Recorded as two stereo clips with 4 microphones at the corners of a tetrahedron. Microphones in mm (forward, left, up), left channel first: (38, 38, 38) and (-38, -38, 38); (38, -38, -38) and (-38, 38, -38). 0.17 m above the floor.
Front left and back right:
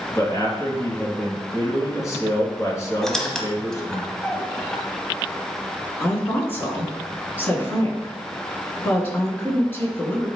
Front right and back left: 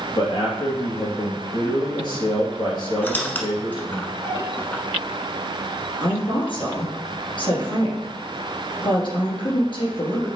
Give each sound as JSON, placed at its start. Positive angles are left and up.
{"t": 0.1, "sound": "a man speaking", "azimuth_deg": -10, "distance_m": 2.5}
{"t": 3.0, "sound": "a squeak", "azimuth_deg": -30, "distance_m": 0.8}
{"t": 6.0, "sound": "a woman speaking", "azimuth_deg": -20, "distance_m": 2.0}